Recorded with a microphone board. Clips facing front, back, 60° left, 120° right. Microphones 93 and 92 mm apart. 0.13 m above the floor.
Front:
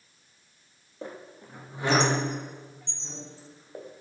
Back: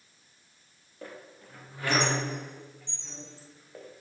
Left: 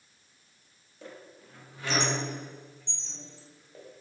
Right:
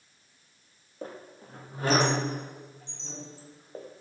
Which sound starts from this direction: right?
A squeak, at 1.0 s.